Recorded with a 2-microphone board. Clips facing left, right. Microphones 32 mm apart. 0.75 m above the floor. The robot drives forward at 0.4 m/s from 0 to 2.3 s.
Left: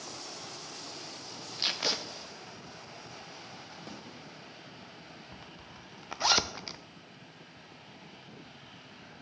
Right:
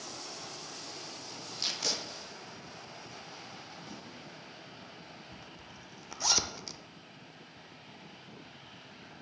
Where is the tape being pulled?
30° left (ahead or behind), 0.9 m.